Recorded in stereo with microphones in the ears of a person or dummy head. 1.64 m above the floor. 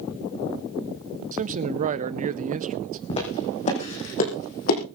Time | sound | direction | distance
1.3 | a man speaking | 40° right (ahead or behind) | 0.8 m
3.1 | footsteps | 35° left (ahead or behind) | 5.5 m